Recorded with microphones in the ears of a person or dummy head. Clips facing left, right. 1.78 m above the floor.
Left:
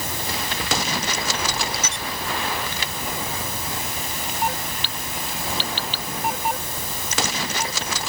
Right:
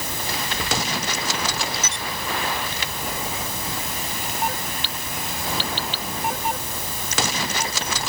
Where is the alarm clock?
I don't hear an alarm clock.